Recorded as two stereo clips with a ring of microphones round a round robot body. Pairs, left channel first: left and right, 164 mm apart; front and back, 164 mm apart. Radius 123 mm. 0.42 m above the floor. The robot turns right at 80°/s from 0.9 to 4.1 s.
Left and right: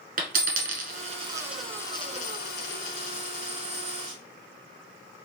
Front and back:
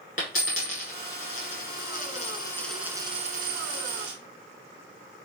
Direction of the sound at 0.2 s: 55° right.